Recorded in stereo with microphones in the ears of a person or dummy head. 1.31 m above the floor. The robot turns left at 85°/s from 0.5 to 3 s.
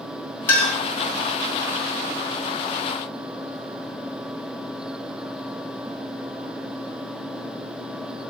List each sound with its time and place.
0.5 s a clink: 20° left (ahead or behind), 1.0 m; by 0.8 s 5° right (ahead or behind), 1.0 m